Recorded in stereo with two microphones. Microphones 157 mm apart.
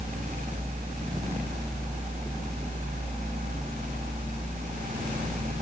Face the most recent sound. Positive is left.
No sound to turn to.